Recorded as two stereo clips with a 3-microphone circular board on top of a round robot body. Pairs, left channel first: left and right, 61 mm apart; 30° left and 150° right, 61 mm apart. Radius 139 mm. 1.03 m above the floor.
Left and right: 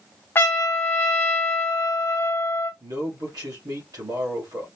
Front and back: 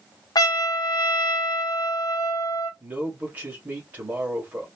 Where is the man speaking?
90° right, 2 m.